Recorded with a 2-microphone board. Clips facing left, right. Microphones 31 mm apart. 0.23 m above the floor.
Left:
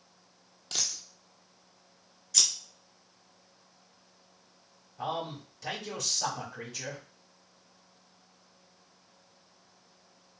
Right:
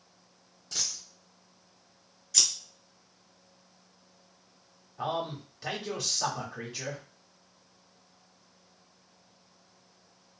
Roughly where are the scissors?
Centre.